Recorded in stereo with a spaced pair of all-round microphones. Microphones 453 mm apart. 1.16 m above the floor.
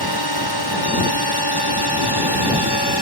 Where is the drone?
55° left (ahead or behind); by 3.0 s 60° left (ahead or behind).